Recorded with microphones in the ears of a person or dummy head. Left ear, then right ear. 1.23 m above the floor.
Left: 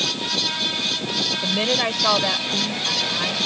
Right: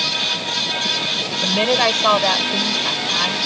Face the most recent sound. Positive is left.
turn(degrees=-30)  # may be behind; listen again after turning